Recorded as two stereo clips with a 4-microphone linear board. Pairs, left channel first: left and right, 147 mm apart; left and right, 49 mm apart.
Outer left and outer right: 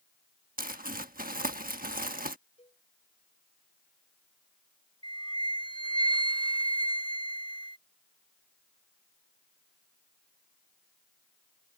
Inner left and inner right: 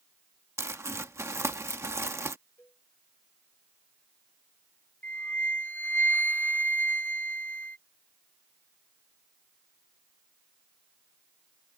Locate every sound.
0.6 s crumpling: 75° right (ahead or behind)
2.6 s a cowbell: 45° left (ahead or behind)
5.0 s a flute: 35° left (ahead or behind)